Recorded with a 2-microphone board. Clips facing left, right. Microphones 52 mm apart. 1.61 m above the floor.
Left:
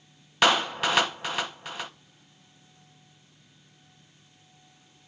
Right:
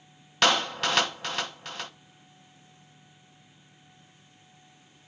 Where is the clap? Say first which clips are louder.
Left 2 dB; 10° left (ahead or behind), 0.6 m.